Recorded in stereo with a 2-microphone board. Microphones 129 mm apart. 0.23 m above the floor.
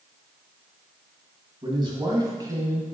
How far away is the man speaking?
About 2 m.